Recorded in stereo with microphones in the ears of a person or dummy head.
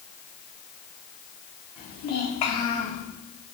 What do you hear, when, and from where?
1.8 s a child speaking: 50° left (ahead or behind), 2.5 m; by 3.0 s 30° left (ahead or behind), 1.9 m